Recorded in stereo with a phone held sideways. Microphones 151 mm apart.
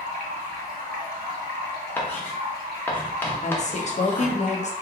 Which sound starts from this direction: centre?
Writing, at 2.0 s.